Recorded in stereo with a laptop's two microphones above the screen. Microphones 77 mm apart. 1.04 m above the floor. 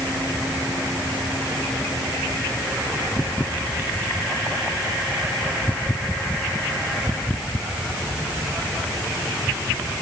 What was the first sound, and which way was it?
Only background noise.